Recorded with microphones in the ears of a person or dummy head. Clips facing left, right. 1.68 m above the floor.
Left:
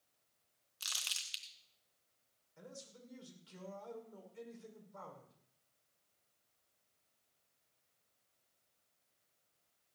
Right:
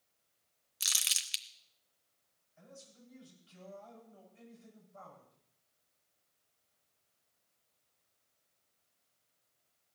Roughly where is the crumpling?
Right.